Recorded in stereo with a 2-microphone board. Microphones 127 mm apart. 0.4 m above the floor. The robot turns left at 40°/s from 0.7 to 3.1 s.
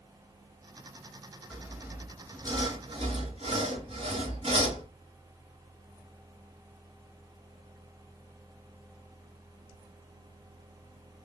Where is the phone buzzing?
I don't hear a phone buzzing.